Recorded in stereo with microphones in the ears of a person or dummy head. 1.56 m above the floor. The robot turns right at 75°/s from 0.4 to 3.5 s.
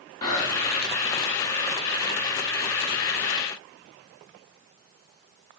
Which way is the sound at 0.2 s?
160° left.